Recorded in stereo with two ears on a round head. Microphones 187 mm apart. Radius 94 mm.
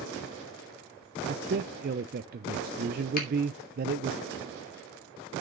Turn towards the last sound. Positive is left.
turn(degrees=45)  # may be behind; listen again after turning